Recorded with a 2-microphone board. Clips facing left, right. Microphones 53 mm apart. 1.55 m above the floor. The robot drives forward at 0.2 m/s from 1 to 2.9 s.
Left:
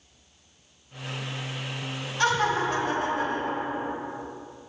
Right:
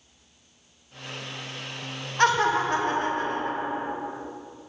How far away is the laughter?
About 1.3 m.